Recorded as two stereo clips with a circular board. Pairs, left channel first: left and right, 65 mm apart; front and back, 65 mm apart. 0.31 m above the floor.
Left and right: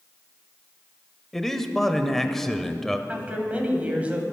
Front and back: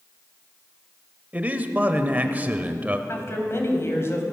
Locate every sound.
1.3 s a man speaking: 165° left, 0.9 m
3.1 s a woman speaking: 30° right, 2 m